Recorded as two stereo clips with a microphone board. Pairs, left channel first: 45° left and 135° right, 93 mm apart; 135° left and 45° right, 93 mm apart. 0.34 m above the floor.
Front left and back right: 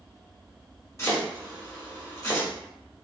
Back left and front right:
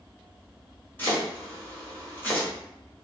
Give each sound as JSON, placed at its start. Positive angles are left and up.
{"t": 1.0, "sound": "chopping", "azimuth_deg": 80, "distance_m": 1.3}